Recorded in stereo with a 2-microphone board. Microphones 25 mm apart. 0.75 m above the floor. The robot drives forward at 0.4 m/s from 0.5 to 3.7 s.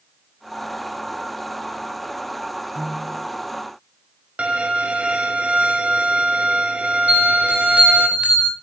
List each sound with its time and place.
2.8 s a piano: 65° right (ahead or behind), 2.0 m; by 3.3 s 60° right (ahead or behind), 2 m
4.4 s a violin: 60° right (ahead or behind), 1.6 m
7.1 s a bell: 70° right (ahead or behind), 3 m